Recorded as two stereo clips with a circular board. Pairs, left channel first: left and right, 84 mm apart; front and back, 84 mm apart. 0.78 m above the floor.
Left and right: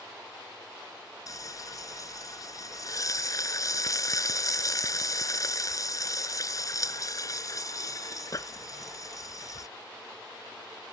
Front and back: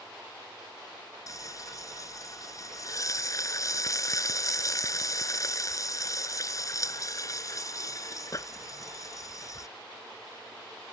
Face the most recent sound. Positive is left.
turn(degrees=45)